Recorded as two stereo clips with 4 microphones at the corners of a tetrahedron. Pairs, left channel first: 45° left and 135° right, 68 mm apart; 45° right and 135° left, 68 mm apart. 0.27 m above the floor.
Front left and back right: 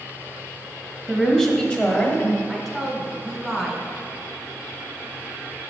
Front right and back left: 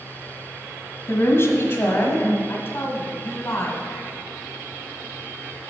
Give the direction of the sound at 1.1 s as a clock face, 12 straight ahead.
1 o'clock.